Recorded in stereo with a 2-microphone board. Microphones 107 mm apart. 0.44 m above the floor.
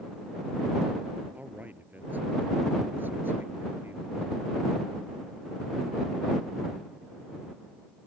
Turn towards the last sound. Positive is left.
turn(degrees=-20)  # may be behind; listen again after turning